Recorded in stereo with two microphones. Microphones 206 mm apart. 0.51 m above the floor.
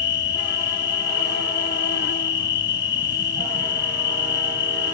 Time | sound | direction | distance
0.0 | an insect | 60° left (ahead or behind) | ?